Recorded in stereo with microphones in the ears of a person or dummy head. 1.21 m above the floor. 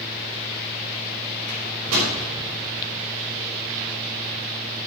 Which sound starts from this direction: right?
A microwave, at 1.5 s.